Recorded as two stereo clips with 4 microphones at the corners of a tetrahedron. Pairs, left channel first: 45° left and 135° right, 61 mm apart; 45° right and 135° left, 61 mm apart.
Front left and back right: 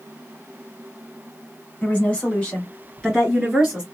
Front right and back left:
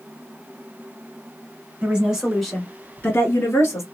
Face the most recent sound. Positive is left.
turn(degrees=-50)